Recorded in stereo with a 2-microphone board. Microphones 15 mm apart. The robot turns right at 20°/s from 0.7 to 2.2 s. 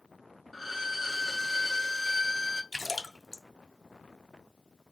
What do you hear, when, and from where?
0.5 s a violin: centre (ahead or behind), 0.5 m; by 2.6 s 15° right (ahead or behind), 0.5 m
2.7 s a splash: 20° right (ahead or behind), 0.6 m